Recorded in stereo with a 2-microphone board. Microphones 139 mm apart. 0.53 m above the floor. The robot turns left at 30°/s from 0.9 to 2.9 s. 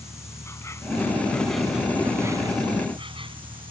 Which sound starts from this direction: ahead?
An insect, at 0.0 s.